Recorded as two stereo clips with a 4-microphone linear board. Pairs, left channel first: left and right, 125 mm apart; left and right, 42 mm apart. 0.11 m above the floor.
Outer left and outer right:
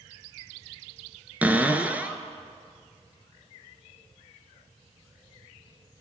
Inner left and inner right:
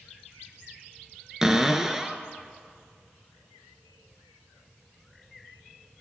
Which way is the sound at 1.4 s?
15° right (ahead or behind).